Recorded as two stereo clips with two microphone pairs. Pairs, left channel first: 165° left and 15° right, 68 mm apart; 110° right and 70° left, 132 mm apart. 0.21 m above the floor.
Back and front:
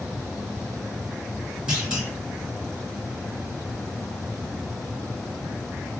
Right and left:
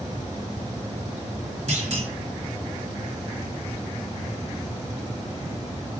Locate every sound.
1.7 s a clunk: 55° left, 2.5 m